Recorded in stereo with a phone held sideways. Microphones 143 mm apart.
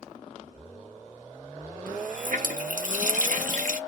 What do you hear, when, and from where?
1.9 s a running tap: 65° right (ahead or behind), 0.9 m